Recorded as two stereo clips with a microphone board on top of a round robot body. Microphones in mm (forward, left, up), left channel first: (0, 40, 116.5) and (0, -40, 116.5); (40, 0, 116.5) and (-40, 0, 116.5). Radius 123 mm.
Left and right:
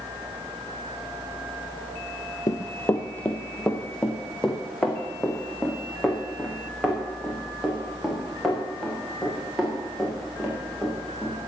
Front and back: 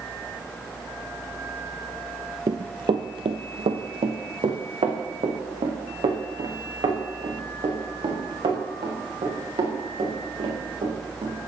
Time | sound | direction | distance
2.5 | running footsteps | 140° left | 0.6 m